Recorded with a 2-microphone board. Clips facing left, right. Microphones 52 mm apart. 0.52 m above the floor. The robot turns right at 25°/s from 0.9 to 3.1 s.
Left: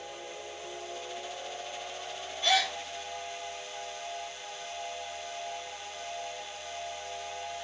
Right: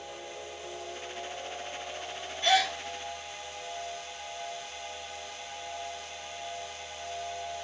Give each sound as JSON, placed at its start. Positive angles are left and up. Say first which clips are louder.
{"t": 2.4, "sound": "a gasp", "louder": "right 2 dB", "side_deg": -35, "distance_m": 1.3}